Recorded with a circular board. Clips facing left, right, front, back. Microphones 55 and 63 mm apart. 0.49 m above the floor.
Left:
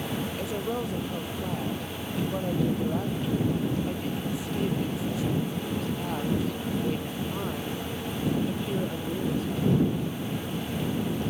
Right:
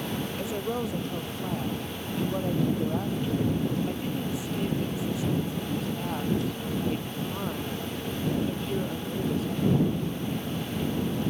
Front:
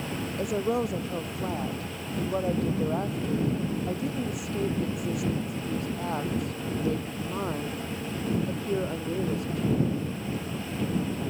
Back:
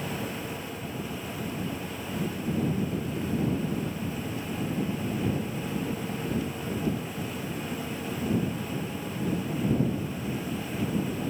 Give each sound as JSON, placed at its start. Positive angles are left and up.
{"t": 0.4, "sound": "a woman speaking", "azimuth_deg": 0}